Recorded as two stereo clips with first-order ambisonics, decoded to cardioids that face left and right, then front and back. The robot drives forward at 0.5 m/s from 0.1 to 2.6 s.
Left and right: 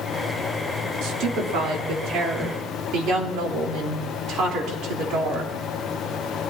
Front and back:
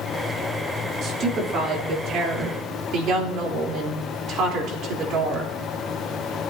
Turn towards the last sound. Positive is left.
turn(degrees=-135)